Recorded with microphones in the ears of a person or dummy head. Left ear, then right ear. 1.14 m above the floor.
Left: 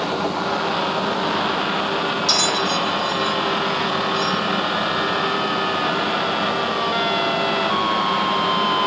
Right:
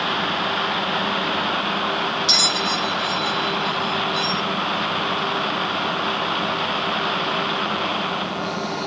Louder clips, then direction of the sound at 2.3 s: Right 2 dB; 5° right (ahead or behind).